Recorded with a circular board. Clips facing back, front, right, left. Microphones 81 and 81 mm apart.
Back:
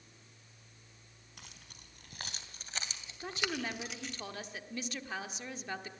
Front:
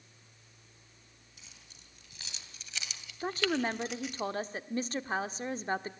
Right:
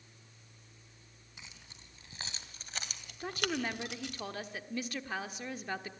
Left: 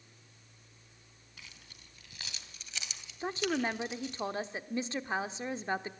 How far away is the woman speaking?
About 1.1 m.